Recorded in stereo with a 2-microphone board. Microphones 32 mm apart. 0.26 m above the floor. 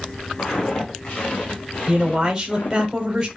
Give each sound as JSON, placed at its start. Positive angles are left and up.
{"t": 0.4, "sound": "footsteps", "side_deg": 40, "distance_m": 3.5}
{"t": 1.9, "sound": "a man speaking", "side_deg": -15, "distance_m": 1.0}